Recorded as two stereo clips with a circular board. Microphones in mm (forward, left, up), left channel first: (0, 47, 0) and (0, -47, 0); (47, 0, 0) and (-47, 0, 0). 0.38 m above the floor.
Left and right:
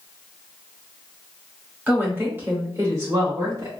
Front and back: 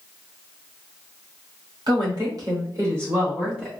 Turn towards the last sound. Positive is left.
turn(degrees=-95)